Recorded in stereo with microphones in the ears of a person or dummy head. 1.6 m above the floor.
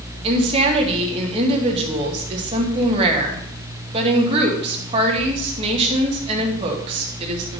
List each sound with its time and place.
0.2 s a woman speaking: 35° right (ahead or behind), 2 m